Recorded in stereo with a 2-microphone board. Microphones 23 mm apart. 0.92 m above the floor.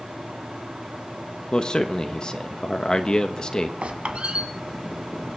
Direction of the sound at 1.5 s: 40° left (ahead or behind).